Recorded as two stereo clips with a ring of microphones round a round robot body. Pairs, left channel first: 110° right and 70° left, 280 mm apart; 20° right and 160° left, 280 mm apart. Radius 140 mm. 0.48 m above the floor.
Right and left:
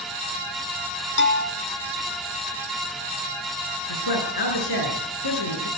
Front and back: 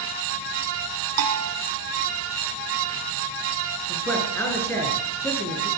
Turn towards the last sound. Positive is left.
turn(degrees=-105)